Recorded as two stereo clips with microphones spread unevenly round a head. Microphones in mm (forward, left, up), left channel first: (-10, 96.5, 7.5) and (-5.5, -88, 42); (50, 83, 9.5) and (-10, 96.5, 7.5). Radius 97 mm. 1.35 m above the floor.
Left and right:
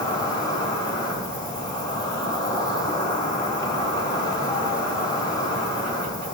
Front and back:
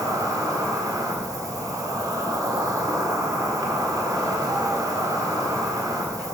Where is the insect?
165° left, 1.5 m.